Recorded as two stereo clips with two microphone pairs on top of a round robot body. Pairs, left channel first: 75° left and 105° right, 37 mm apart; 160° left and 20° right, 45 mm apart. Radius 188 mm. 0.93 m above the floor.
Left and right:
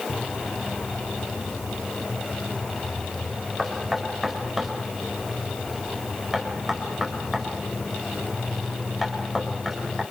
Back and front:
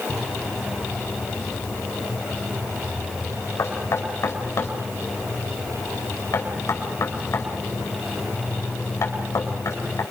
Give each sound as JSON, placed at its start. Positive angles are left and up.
{"t": 3.6, "sound": "knocking", "azimuth_deg": 165, "distance_m": 5.0}